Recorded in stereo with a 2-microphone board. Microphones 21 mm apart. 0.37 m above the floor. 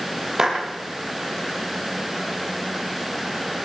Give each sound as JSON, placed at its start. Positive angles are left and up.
{"t": 0.4, "sound": "a clap", "side_deg": -20, "distance_m": 9.0}